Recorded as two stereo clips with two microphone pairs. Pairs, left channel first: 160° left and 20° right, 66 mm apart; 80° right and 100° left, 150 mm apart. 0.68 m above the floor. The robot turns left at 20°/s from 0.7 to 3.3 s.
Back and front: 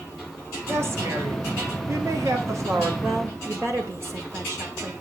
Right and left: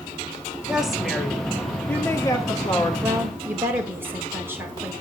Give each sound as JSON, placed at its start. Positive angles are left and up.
{"t": 0.7, "sound": "a woman speaking", "azimuth_deg": 15, "distance_m": 1.6}
{"t": 3.0, "sound": "a woman speaking", "azimuth_deg": 30, "distance_m": 2.0}